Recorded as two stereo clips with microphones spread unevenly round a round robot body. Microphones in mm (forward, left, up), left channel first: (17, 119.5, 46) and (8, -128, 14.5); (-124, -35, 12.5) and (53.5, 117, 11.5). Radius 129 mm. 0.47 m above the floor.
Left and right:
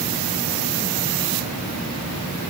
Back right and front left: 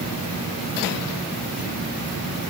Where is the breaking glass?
No breaking glass in this recording.